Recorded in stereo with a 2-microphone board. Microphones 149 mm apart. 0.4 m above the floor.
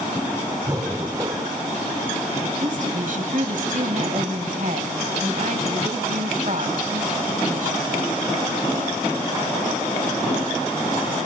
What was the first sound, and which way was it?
Breathing, 25° right (ahead or behind).